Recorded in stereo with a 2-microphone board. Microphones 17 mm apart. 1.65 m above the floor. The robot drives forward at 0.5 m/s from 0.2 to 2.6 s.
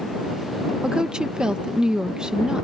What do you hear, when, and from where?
0.8 s a woman speaking: 60° right (ahead or behind); by 2.6 s 55° right (ahead or behind)